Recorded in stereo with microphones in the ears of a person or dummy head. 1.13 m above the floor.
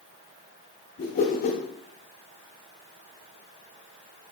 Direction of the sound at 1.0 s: 50° left (ahead or behind).